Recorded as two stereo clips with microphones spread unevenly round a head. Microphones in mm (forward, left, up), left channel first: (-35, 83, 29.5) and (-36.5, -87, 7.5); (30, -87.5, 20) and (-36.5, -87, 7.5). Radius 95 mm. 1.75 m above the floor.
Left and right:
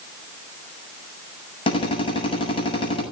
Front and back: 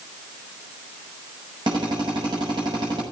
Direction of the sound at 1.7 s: 145° left.